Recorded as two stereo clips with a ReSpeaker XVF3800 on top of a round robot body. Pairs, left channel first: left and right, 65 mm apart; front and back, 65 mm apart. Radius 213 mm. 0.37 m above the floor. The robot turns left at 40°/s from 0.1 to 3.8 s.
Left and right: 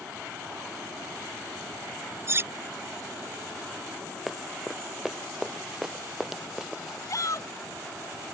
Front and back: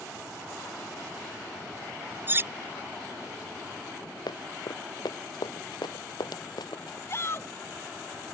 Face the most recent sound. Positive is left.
turn(degrees=50)